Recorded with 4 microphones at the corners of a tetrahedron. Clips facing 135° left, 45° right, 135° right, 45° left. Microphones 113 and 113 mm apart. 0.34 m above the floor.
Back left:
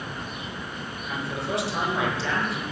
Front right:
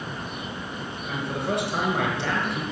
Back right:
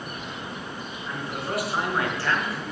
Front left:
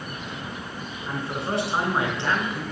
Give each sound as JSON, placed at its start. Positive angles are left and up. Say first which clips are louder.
{"t": 1.1, "sound": "a man speaking", "louder": "front right 2 dB, front left 3 dB", "azimuth_deg": -10, "distance_m": 4.5}